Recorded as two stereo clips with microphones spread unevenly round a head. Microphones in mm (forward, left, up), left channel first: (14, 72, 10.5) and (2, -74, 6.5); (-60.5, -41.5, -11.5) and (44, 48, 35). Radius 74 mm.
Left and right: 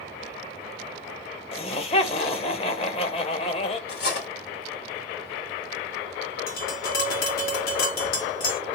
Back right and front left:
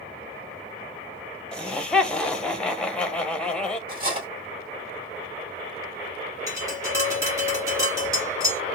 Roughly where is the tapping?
Left.